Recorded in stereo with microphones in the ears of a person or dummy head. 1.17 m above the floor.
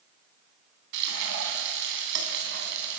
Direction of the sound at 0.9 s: 65° right (ahead or behind).